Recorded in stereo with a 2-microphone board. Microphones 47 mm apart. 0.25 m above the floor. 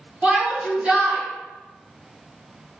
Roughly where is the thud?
I don't hear a thud.